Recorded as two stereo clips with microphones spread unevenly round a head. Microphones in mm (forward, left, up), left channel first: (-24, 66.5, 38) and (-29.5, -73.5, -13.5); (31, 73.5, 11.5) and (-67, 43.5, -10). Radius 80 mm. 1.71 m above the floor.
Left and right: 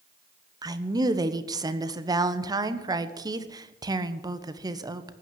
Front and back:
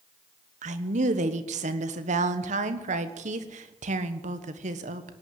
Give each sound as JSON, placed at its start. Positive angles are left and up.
{"t": 0.6, "sound": "a woman speaking", "azimuth_deg": -160, "distance_m": 1.3}